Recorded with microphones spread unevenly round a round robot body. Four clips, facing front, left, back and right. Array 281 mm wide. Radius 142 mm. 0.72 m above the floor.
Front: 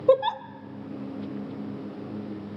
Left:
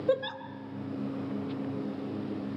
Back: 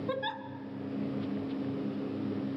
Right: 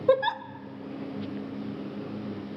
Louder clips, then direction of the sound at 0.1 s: Right 6 dB, front 17 dB; 15° right.